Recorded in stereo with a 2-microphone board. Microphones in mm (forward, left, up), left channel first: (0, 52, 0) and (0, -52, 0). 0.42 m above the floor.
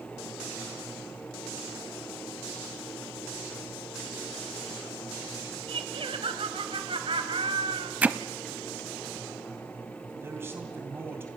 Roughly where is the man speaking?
Right.